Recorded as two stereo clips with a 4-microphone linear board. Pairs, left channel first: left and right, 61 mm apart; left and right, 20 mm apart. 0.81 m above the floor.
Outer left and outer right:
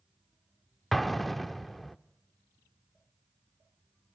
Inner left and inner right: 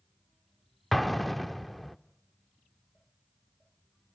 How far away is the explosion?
About 0.6 m.